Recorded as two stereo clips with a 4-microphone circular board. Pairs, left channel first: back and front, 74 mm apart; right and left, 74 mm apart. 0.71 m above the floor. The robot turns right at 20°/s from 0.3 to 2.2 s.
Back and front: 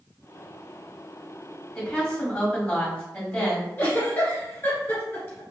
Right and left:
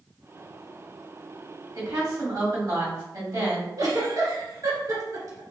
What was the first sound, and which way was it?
A woman speaking, 100° left.